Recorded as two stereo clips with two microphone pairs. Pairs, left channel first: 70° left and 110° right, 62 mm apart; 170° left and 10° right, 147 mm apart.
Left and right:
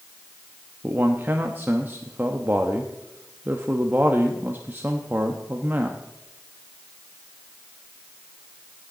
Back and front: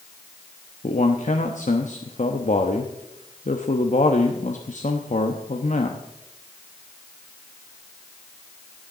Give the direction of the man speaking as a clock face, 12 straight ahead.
6 o'clock.